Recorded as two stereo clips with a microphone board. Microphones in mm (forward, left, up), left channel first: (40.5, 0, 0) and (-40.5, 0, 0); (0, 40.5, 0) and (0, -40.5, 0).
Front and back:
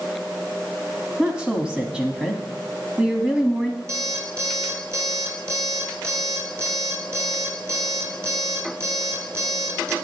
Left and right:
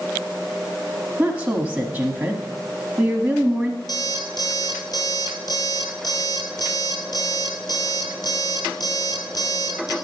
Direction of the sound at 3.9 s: 125° left.